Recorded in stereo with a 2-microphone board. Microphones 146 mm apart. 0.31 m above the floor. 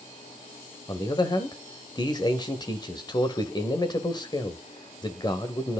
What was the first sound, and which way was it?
A man speaking, 30° left (ahead or behind).